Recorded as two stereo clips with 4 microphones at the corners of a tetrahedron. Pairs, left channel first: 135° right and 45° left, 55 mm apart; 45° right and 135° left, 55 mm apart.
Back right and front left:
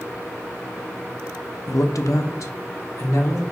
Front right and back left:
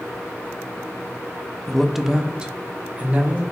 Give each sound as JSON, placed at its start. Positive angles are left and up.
{"t": 1.7, "sound": "a man speaking", "azimuth_deg": -125, "distance_m": 0.5}